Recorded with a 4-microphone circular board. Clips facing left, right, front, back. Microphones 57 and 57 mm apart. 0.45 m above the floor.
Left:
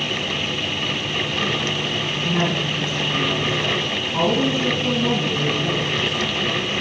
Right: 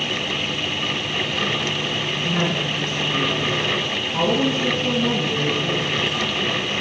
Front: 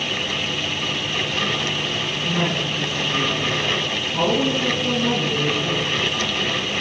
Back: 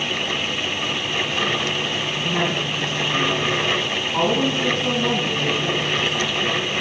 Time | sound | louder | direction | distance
2.2 | a woman speaking | left 1 dB, even | 150° left | 3.5 m